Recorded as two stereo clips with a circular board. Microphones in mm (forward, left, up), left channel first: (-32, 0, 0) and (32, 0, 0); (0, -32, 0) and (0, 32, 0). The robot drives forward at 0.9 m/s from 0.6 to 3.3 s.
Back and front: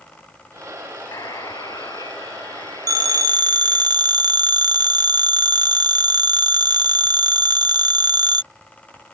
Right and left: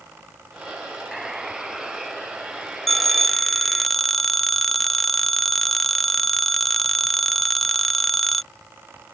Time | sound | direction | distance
1.1 | a buzzer | 170° left | ?
2.9 | a phone ringing | straight ahead | ?